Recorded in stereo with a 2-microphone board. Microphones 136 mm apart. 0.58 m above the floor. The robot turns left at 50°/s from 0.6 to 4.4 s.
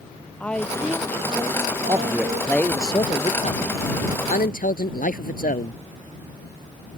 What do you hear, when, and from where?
0.4 s a woman speaking: 10° left; by 2.6 s 90° right
1.9 s a man speaking: 25° right (ahead or behind); by 5.8 s 75° left (ahead or behind)